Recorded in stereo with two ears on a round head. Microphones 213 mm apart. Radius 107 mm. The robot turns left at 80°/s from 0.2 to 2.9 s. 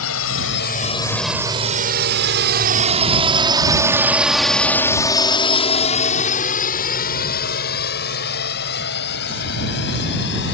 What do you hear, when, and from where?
0.0 s a drone: 65° left (ahead or behind); by 10.5 s 45° left (ahead or behind)